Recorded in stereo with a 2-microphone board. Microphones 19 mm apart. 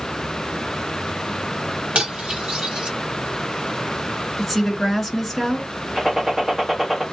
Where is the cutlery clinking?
80° right, 1.2 m.